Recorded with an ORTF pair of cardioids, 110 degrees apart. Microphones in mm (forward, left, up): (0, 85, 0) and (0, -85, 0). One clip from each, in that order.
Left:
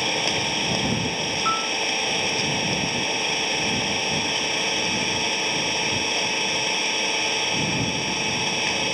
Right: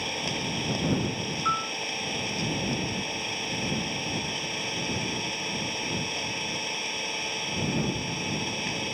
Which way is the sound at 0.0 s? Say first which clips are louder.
Left 7 dB; 40° left.